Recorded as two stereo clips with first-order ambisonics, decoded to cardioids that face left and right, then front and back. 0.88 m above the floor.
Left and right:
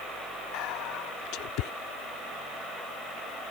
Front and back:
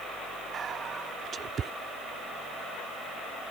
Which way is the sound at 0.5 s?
115° left.